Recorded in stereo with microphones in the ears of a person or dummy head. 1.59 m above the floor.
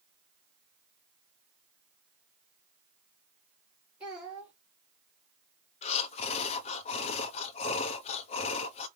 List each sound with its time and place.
4.0 s a child speaking: 10° right (ahead or behind), 1.7 m
5.8 s breathing: 35° left (ahead or behind), 0.7 m